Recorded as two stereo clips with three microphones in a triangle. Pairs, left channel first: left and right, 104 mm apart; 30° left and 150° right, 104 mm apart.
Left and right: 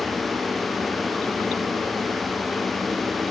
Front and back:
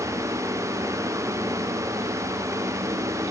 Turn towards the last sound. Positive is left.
No sound to turn to.